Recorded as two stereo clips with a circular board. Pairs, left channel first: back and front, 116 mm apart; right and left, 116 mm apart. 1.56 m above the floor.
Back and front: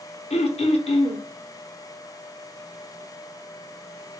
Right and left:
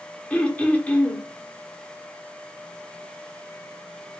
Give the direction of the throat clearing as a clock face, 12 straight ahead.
6 o'clock.